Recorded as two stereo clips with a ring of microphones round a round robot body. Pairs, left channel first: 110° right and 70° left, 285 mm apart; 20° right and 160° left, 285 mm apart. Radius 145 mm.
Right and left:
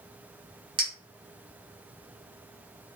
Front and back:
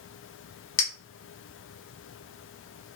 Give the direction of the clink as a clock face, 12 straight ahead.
12 o'clock.